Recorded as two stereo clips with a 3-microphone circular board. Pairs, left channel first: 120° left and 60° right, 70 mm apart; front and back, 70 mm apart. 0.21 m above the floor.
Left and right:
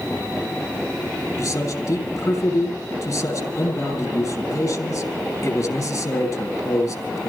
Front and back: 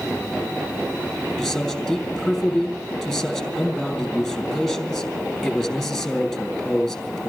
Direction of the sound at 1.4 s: 90° left.